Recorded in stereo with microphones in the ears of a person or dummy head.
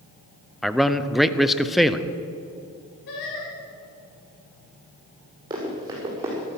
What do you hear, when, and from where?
0.6 s a man speaking: centre (ahead or behind), 0.7 m
3.1 s singing: 65° left (ahead or behind), 4 m
5.5 s running footsteps: 25° right (ahead or behind), 5 m; by 6.6 s 20° right (ahead or behind), 5.5 m